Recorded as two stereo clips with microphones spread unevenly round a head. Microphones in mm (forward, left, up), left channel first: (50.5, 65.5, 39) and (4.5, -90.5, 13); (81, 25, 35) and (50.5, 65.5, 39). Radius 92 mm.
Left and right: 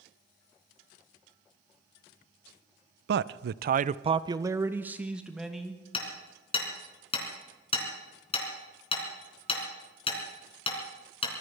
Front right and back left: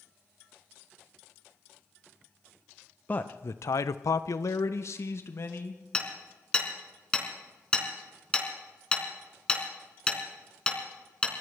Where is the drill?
I don't hear a drill.